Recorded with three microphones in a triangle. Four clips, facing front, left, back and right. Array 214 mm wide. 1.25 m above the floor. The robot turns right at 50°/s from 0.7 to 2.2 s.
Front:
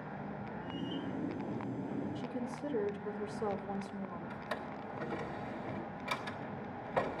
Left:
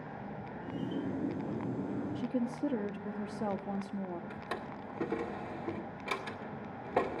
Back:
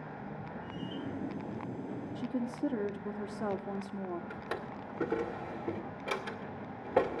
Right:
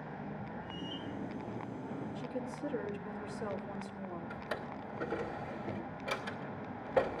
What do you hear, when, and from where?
2.1 s a woman speaking: 130° left, 1.7 m; by 4.2 s 135° left, 1.7 m
4.3 s a drawer: 145° left, 1.6 m